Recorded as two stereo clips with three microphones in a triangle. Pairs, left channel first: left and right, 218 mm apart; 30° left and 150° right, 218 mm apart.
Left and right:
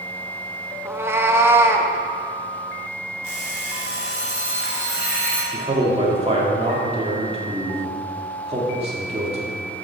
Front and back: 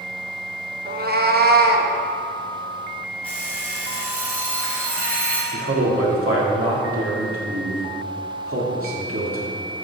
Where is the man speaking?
155° right, 2.5 m.